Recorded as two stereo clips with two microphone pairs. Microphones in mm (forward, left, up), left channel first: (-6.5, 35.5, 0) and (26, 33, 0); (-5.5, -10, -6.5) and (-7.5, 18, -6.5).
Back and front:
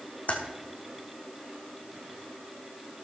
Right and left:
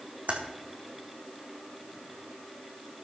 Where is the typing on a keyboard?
135° left, 2.5 m.